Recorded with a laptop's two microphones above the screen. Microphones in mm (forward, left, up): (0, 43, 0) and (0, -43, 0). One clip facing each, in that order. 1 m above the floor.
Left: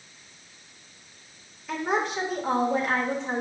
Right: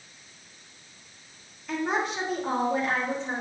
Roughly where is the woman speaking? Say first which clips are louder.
Left 1 dB; centre.